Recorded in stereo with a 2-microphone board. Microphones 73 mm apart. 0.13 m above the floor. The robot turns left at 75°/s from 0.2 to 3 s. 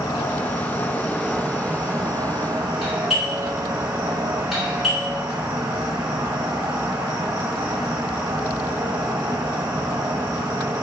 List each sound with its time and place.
0.0 s an insect: 95° left, 1.1 m; by 10.8 s 115° right, 1.1 m
2.8 s a doorbell: centre (ahead or behind), 1.5 m; by 5.2 s 5° right (ahead or behind), 1.5 m